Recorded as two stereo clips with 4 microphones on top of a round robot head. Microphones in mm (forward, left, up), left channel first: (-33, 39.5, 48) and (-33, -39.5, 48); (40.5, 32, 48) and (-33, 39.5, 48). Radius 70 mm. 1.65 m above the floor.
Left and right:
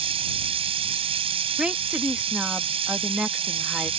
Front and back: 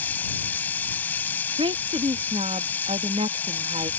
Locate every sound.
0.0 s running water: 80° right
1.6 s a woman speaking: 170° right